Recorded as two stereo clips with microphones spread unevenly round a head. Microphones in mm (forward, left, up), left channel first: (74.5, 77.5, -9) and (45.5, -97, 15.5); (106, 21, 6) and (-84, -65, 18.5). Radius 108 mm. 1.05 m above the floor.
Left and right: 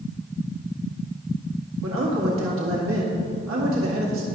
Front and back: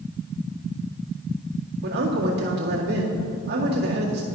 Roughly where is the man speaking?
Behind right.